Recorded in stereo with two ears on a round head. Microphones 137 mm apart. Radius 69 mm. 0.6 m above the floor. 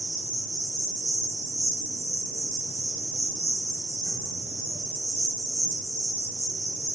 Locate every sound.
0.0 s an insect: 20° right (ahead or behind), 1.3 m